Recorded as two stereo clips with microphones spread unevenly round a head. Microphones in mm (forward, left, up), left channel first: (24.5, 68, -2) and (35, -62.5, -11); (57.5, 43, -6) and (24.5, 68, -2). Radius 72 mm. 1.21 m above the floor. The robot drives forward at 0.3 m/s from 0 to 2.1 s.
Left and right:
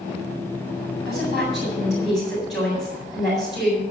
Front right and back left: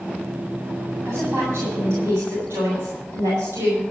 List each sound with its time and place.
1.1 s a woman speaking: 175° right, 7.5 m